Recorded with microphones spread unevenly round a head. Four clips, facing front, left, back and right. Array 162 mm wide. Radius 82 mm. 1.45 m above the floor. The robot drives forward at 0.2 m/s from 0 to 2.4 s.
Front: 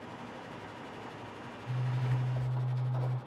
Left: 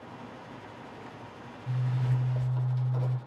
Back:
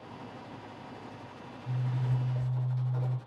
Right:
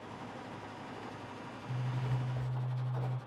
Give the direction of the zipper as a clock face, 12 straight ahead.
9 o'clock.